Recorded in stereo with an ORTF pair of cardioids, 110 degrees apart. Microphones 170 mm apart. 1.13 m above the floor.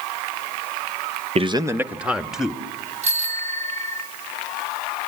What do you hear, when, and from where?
1.4 s a man speaking: 40° right, 0.5 m; by 2.6 s straight ahead, 2.0 m
3.0 s a bicycle bell: 40° right, 6 m